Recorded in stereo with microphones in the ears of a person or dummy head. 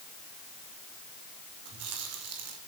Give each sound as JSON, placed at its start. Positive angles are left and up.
{"t": 1.6, "sound": "chewing", "side_deg": -85, "distance_m": 5.0}